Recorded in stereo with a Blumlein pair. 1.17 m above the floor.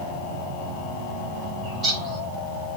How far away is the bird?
About 1.8 m.